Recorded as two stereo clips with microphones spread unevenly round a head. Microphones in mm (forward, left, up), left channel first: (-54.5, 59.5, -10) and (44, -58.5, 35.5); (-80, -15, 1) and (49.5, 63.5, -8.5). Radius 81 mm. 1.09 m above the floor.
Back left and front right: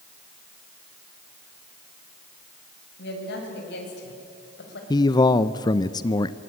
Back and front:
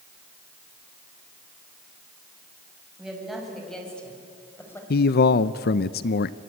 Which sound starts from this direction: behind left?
A woman speaking, at 3.0 s.